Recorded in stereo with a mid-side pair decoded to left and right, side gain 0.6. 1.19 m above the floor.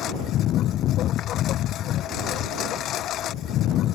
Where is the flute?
No flute in this recording.